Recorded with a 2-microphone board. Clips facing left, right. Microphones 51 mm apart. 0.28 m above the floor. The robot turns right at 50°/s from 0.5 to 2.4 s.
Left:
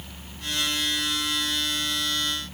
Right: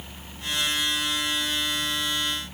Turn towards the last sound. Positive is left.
No sound to turn to.